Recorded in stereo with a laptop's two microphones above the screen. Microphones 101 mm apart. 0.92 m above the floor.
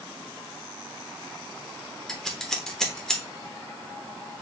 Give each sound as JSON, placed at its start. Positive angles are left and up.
{"t": 2.1, "sound": "scissors", "side_deg": 5, "distance_m": 0.7}